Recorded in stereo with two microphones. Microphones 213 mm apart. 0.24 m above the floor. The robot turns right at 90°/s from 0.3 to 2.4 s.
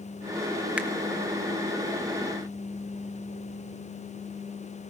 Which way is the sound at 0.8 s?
5° right (ahead or behind).